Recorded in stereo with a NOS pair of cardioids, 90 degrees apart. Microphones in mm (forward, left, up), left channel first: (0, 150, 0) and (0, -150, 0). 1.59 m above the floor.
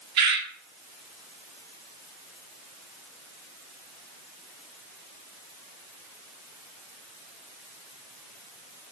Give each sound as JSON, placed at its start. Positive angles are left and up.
{"t": 0.2, "sound": "a bird", "azimuth_deg": -65, "distance_m": 1.1}